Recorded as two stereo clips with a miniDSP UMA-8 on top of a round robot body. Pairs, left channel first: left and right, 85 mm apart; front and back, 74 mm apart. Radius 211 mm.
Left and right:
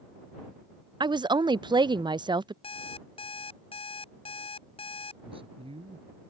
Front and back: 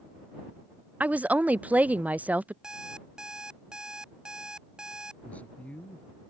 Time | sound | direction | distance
1.0 | a woman speaking | 110° right | ?
2.6 | an alarm clock | 100° left | ?
5.2 | a man speaking | 75° right | ?